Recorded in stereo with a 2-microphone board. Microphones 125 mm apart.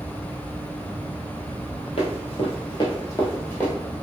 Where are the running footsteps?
55° left (ahead or behind), 1.2 m; by 3.7 s 15° left (ahead or behind), 1.3 m.